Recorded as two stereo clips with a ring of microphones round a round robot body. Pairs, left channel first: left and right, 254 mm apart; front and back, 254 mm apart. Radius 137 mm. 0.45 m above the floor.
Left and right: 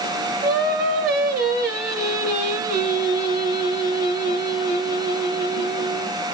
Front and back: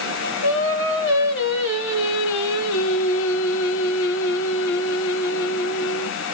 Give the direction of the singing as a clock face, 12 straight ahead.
1 o'clock.